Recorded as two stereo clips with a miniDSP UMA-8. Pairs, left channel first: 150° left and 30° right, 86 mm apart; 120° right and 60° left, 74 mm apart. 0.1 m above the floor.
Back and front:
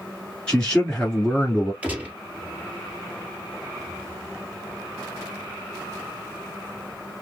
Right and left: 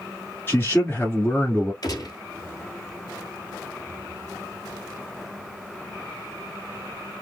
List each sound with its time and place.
0.5 s a man speaking: 145° right, 1.3 m
1.8 s a gunshot: 100° right, 1.7 m